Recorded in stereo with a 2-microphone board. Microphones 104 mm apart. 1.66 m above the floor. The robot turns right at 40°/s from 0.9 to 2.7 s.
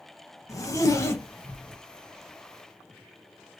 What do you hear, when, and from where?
0.5 s a zipper: 30° left (ahead or behind), 0.9 m; by 1.8 s 5° left (ahead or behind), 0.9 m